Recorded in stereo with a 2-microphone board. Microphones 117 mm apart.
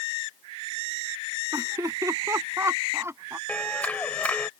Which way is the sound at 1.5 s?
30° right (ahead or behind).